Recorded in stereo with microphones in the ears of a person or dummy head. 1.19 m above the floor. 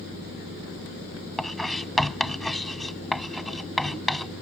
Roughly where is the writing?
Centre.